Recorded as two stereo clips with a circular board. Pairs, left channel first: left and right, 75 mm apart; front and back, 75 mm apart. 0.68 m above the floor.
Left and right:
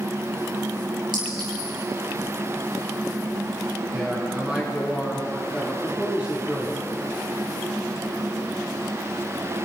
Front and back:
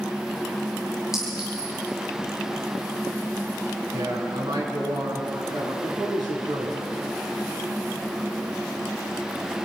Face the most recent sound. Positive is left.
turn(degrees=-165)